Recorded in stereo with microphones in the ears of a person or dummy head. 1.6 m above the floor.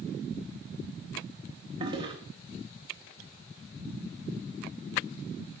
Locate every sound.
1.8 s a toilet flushing: 25° right (ahead or behind), 1.7 m